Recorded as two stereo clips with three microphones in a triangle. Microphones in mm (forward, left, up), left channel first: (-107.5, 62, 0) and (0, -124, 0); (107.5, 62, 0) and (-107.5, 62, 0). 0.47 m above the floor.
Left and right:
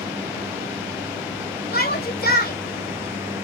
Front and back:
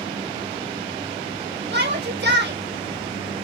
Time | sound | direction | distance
1.7 | a shout | 155° left | 2.5 m